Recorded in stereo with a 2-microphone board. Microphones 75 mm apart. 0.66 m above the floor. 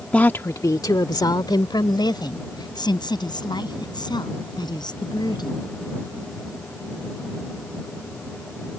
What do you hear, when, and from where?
0.1 s a woman speaking: 20° left (ahead or behind); by 5.6 s 75° left (ahead or behind)